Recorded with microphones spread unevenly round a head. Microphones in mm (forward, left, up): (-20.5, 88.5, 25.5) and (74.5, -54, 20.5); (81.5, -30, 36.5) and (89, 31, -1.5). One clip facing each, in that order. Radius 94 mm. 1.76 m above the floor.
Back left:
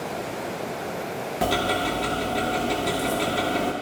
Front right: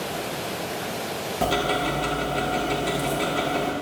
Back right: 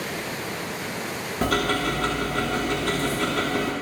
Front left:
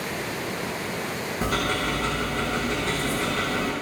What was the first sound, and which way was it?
Ticking, 150° right.